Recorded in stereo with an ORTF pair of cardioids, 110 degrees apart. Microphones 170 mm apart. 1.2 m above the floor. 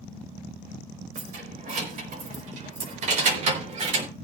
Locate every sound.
1.1 s keys jangling: 55° right, 4.5 m; by 4.1 s 45° right, 3 m